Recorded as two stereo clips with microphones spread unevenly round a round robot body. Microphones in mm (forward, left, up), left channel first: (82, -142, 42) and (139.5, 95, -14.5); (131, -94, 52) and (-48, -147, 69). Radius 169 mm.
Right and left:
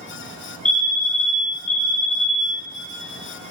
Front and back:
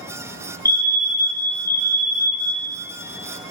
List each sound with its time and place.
0.7 s a fire alarm: 45° right, 2.5 m